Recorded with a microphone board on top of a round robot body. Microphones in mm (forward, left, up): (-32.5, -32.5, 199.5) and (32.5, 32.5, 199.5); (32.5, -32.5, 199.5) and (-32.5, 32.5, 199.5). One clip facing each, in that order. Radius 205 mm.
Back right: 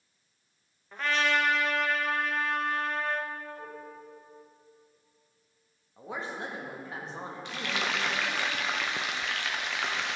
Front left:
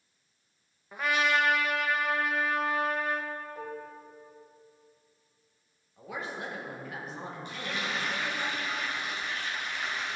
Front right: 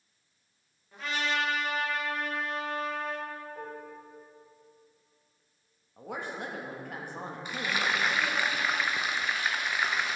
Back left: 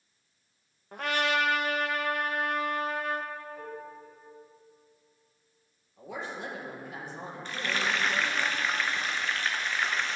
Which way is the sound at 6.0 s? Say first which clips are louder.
Back right 1 dB, front right 1 dB; 75° right.